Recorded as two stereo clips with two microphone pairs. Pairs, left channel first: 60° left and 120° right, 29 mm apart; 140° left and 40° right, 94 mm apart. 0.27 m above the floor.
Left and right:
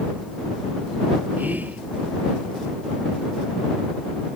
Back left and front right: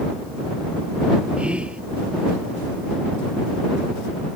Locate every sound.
1.4 s whispering: 115° right